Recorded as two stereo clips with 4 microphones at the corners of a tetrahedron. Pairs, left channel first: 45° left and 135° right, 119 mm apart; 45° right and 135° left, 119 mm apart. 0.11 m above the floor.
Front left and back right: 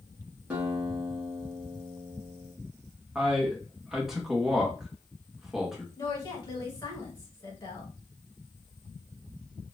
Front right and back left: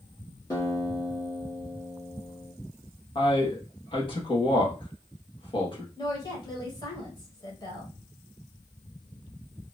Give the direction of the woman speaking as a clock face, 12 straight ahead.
12 o'clock.